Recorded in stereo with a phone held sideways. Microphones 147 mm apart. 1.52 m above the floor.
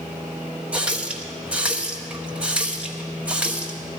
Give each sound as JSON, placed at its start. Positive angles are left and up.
{"t": 0.7, "sound": "a running tap", "side_deg": -10, "distance_m": 1.2}